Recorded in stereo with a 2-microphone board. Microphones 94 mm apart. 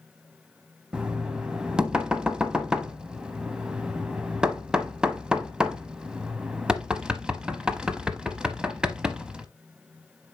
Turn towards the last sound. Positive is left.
turn(degrees=-10)  # may be behind; listen again after turning